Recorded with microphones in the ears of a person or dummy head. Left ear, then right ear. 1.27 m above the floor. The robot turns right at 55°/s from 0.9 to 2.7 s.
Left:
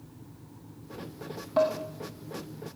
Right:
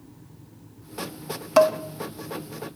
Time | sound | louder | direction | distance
1.6 | dishes clattering | right 8 dB | 55° right (ahead or behind) | 0.7 m